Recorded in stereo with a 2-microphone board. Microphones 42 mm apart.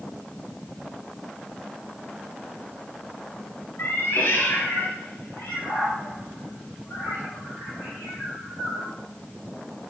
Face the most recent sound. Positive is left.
turn(degrees=65)  # may be behind; listen again after turning